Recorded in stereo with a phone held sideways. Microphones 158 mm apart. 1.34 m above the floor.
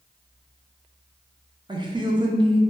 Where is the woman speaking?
30° right (ahead or behind), 0.6 m.